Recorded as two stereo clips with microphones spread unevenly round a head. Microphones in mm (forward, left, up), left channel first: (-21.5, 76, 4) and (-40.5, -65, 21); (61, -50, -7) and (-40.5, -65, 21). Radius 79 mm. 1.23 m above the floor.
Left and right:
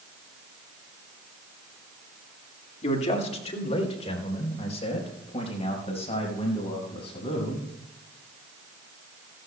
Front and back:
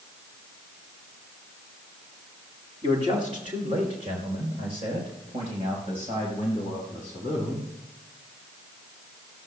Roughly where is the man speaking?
Behind left.